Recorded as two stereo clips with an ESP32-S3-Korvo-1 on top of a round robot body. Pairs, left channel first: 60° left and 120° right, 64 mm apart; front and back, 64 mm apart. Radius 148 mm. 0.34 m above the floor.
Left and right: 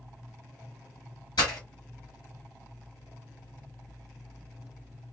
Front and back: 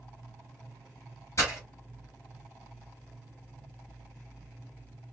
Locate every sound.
1.4 s breaking glass: 45° left, 1.4 m